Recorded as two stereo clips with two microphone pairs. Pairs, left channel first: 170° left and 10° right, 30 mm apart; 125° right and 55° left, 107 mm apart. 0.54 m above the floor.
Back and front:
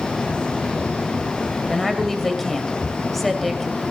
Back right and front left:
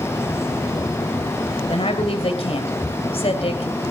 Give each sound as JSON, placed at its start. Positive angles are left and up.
{"t": 1.7, "sound": "a woman speaking", "azimuth_deg": -105, "distance_m": 2.5}